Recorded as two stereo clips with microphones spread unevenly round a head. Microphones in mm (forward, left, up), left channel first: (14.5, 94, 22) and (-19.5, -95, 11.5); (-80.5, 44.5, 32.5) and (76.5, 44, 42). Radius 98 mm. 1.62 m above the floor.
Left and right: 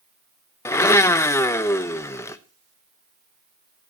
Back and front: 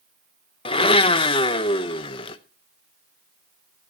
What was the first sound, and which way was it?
A blender, 145° left.